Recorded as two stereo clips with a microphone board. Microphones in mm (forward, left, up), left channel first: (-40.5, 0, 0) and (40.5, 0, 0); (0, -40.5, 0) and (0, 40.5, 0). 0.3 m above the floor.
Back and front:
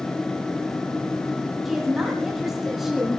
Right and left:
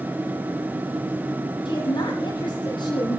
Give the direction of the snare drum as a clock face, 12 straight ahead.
I don't hear a snare drum.